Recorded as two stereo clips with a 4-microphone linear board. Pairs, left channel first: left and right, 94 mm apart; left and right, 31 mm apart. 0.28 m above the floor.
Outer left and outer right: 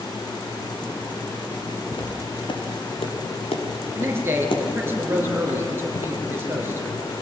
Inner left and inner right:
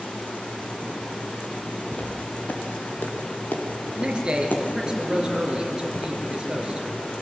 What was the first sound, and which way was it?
Footsteps, 55° left (ahead or behind).